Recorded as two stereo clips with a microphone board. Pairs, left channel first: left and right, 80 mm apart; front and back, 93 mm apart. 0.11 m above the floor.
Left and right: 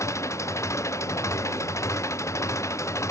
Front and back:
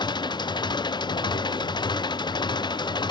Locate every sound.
0.0 s an engine running: 40° left